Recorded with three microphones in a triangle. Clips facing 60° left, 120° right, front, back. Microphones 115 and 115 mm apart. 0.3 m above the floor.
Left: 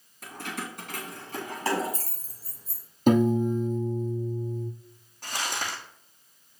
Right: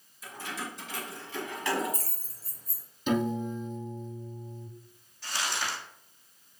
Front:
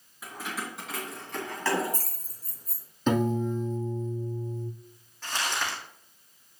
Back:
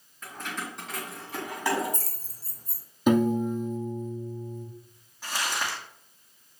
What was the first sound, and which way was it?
Keys jangling, 80° left.